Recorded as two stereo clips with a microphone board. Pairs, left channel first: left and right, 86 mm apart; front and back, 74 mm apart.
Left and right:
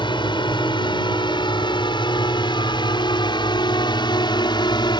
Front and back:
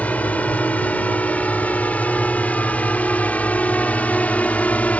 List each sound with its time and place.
0.0 s a drone: 70° left